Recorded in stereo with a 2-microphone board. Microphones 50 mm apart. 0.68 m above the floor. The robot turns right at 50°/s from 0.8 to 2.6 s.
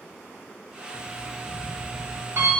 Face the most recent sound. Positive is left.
turn(degrees=-115)